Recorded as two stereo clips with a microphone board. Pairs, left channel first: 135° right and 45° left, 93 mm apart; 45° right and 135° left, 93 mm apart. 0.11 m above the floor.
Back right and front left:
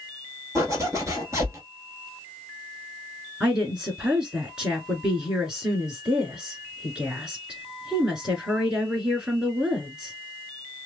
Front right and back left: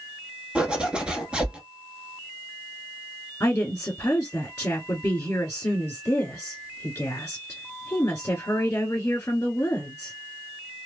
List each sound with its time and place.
0.6 s a zipper: 65° left, 0.8 m
3.4 s a woman speaking: 25° right, 1.5 m